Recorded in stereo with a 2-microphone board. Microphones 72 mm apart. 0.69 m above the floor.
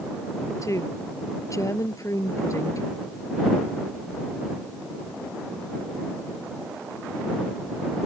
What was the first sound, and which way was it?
A woman speaking, 40° left (ahead or behind).